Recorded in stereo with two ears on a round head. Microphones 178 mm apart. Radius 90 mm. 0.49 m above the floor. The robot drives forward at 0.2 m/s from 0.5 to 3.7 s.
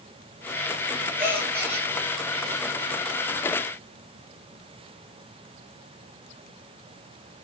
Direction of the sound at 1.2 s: 10° right (ahead or behind).